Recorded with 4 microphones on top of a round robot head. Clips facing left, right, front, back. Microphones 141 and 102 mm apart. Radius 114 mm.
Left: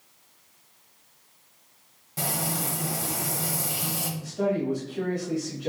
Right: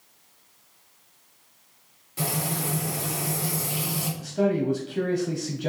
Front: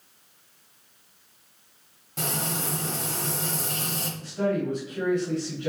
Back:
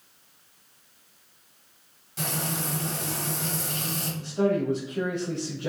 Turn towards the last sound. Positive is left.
turn(degrees=-110)